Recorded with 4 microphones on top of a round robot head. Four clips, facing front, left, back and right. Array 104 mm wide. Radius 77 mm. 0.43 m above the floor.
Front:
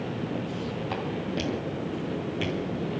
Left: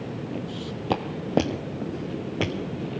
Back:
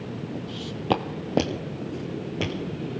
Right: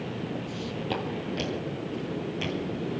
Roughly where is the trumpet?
I don't hear a trumpet.